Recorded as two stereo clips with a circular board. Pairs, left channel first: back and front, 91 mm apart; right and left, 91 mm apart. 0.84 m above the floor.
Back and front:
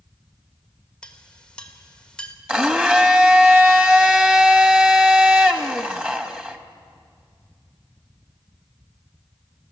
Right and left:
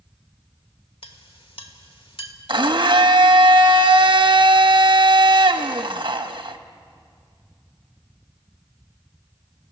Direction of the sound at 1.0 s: 100° right.